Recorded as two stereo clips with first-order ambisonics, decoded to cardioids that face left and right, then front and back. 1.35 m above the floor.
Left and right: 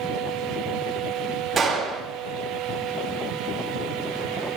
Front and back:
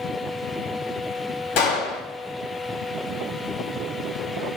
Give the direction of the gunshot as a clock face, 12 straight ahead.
1 o'clock.